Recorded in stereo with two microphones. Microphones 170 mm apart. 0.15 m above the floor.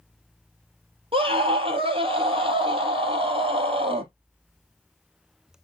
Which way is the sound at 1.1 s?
35° right (ahead or behind).